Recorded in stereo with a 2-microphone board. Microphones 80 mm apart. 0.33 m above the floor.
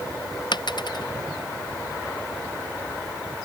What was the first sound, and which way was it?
A dropped coin, 70° left (ahead or behind).